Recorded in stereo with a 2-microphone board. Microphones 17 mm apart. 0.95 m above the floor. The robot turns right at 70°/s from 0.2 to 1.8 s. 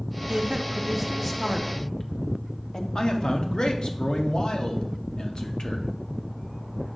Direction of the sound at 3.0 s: 60° left (ahead or behind).